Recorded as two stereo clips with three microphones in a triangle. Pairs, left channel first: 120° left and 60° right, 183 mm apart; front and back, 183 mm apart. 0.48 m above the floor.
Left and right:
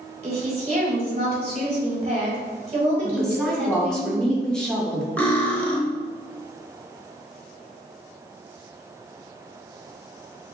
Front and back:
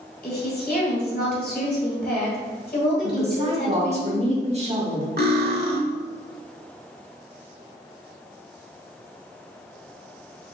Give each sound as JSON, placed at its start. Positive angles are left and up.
{"t": 0.2, "sound": "a woman speaking", "azimuth_deg": -15, "distance_m": 1.7}
{"t": 3.0, "sound": "a woman speaking", "azimuth_deg": -155, "distance_m": 1.2}
{"t": 5.2, "sound": "cutlery clinking", "azimuth_deg": -160, "distance_m": 1.0}